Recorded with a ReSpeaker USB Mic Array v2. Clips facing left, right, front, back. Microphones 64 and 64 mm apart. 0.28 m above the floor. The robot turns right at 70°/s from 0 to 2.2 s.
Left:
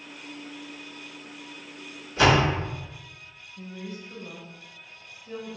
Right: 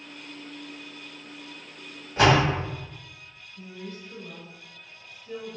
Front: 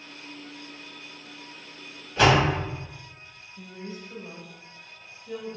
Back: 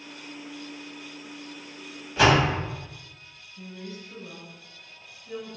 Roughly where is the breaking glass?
No breaking glass in this recording.